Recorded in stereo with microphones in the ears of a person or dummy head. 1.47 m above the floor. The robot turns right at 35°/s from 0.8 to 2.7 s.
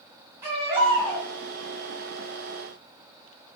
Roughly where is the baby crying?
Centre.